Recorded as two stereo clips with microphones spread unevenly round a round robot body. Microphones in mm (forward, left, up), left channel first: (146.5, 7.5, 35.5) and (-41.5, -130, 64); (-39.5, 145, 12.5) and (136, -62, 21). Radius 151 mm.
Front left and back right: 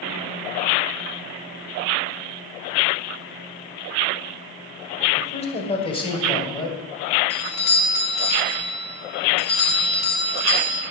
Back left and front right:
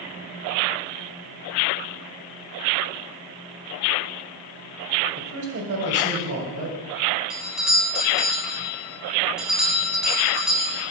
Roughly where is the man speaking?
Ahead.